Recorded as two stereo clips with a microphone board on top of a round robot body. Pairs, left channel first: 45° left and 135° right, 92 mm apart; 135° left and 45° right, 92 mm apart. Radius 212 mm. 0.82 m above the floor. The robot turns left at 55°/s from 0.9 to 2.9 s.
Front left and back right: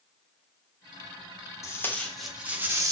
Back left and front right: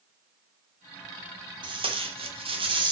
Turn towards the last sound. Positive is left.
turn(degrees=-80)